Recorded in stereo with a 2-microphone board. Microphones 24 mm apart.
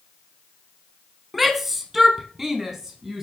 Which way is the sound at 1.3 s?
10° right (ahead or behind).